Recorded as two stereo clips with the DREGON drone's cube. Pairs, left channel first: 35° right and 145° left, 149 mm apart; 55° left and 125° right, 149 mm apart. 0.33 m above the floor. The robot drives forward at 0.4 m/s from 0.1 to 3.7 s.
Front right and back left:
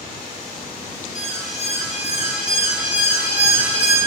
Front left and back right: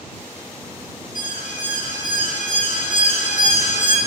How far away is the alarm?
About 4 m.